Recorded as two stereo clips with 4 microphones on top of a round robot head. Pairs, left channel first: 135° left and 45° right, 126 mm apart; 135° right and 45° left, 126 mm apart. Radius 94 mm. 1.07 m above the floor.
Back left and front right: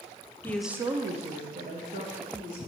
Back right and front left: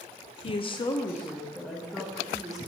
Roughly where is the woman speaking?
Behind.